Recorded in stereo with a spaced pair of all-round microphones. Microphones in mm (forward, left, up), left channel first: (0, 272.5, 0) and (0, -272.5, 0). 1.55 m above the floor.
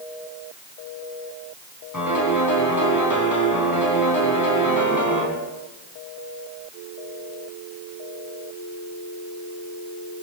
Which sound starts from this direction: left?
A piano, at 1.9 s.